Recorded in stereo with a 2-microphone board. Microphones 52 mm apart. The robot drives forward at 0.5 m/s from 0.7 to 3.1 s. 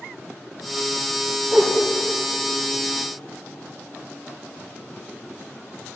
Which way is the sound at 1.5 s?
30° right (ahead or behind).